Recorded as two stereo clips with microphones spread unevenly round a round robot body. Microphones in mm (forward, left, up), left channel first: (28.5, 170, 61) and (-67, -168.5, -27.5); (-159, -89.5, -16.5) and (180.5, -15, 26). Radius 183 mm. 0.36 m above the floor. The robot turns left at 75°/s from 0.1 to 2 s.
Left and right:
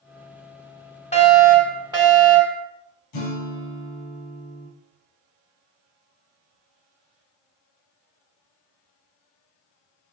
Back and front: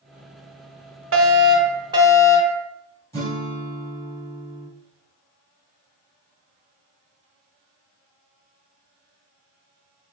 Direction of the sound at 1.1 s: 10° right.